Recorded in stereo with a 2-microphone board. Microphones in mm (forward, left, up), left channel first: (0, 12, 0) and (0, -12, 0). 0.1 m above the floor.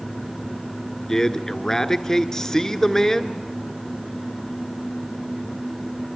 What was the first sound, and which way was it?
A man speaking, 20° left (ahead or behind).